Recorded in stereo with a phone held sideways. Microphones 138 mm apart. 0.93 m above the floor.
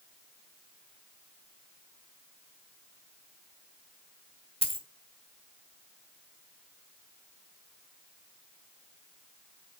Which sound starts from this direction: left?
A dropped coin, at 4.6 s.